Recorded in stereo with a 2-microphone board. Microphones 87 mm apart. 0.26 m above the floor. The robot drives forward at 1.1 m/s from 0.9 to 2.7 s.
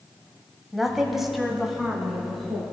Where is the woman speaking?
5° right (ahead or behind), 1.1 m; by 2.6 s centre (ahead or behind), 2.5 m.